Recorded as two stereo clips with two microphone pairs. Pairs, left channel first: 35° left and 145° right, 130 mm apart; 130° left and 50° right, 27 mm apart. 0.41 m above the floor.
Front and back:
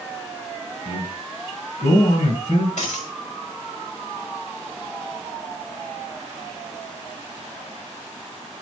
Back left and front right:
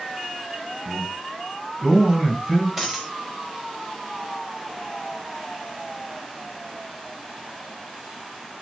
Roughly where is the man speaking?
Ahead left.